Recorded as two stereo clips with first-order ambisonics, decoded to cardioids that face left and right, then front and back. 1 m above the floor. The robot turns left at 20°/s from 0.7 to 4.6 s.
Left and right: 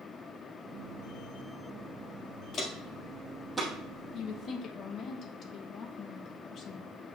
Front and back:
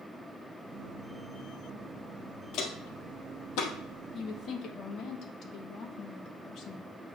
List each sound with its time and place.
2.5 s footsteps: 35° left, 1.7 m; by 3.7 s 10° right, 2.5 m
4.1 s a woman speaking: 50° left, 1.0 m; by 6.9 s 40° left, 1.0 m